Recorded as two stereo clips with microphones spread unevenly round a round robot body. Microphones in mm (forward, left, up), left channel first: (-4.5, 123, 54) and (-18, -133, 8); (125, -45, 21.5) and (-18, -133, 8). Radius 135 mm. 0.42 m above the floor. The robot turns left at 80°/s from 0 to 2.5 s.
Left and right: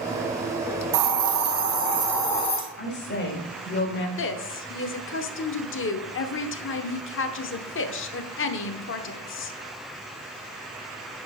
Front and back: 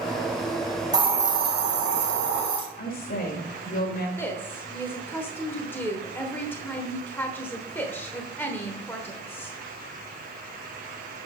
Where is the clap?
I don't hear a clap.